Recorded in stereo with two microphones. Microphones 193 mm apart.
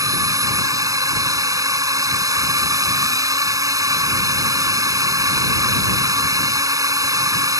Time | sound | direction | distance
0.0 | a drone | 20° right (ahead or behind) | ?